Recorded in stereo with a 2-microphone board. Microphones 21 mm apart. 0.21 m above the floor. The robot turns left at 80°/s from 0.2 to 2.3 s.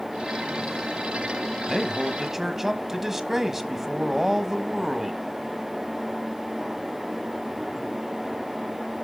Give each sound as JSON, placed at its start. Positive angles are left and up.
{"t": 1.7, "sound": "a man speaking", "side_deg": 5, "distance_m": 1.1}